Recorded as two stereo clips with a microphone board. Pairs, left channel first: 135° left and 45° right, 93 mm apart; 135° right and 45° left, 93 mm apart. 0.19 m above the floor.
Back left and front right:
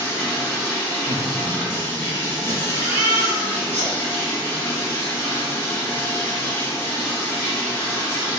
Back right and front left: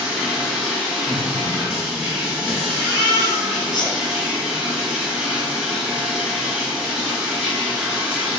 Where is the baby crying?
20° left, 1.6 m.